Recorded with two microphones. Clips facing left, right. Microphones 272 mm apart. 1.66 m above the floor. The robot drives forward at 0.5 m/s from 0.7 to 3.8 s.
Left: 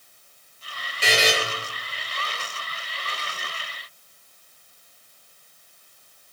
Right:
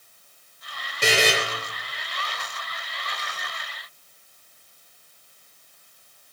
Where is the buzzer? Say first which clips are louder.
Right 1 dB; 50° right (ahead or behind), 0.6 m; by 1.3 s 65° right (ahead or behind), 0.5 m.